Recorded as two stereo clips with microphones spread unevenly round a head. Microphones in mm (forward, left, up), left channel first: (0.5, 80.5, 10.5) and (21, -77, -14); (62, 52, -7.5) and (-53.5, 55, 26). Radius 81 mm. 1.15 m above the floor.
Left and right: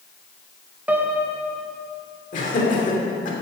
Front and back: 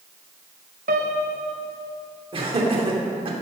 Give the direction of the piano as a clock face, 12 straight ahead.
5 o'clock.